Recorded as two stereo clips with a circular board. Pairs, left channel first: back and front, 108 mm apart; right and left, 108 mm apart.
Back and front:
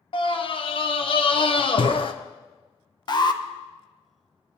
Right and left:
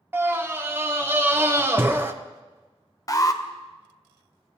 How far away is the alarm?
About 0.6 m.